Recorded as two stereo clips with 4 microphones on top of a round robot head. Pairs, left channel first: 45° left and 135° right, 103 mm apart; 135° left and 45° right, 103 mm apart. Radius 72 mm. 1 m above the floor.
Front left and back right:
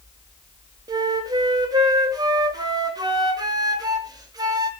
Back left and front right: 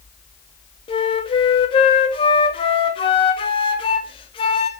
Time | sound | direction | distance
0.9 | a flute | 170° left | 2.5 m